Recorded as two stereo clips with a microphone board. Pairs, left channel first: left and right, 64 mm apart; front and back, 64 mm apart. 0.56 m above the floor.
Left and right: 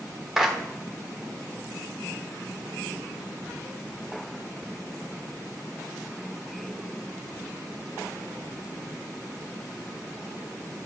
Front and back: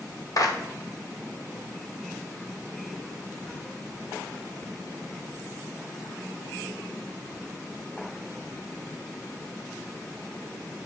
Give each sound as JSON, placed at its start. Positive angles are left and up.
{"t": 0.4, "sound": "a clap", "azimuth_deg": -10, "distance_m": 1.3}